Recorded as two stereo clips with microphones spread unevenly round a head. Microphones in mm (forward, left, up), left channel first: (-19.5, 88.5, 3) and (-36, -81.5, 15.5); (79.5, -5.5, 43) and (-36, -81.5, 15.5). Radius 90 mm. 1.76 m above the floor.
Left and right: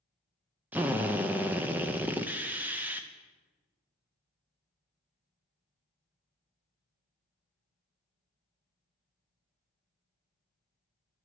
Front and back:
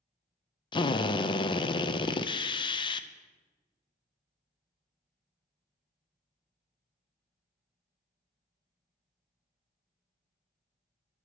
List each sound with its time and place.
0.7 s a drill: 15° right, 0.7 m